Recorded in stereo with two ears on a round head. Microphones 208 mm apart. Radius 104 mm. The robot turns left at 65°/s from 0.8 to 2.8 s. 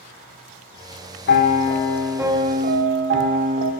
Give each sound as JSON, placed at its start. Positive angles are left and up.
{"t": 1.3, "sound": "a piano", "azimuth_deg": 50, "distance_m": 0.9}